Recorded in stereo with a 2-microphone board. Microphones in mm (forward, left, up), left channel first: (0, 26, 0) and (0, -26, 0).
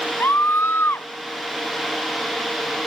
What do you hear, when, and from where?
0.2 s a scream: 45° left (ahead or behind)